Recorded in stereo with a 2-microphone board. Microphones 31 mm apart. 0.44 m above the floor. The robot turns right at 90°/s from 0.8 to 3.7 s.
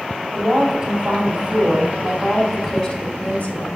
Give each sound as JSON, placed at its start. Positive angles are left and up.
{"t": 0.3, "sound": "a woman speaking", "azimuth_deg": -160, "distance_m": 1.9}